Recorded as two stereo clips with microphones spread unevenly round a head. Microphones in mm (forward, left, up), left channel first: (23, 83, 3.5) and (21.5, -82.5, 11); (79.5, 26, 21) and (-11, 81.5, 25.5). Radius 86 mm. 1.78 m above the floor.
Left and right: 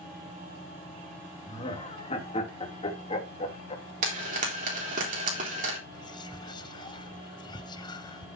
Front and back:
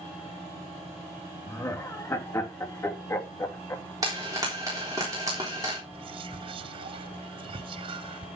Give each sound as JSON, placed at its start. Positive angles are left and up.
{"t": 1.5, "sound": "laughter", "azimuth_deg": 35, "distance_m": 2.5}
{"t": 4.0, "sound": "frying", "azimuth_deg": -140, "distance_m": 3.5}
{"t": 5.9, "sound": "whispering", "azimuth_deg": 150, "distance_m": 0.5}